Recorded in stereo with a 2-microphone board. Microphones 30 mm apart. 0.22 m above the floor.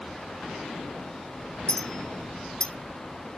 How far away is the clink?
About 0.8 m.